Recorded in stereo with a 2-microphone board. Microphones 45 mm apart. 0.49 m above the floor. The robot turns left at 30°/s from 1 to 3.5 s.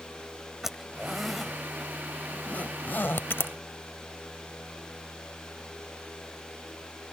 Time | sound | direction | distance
0.6 | a zipper | 10° right (ahead or behind) | ?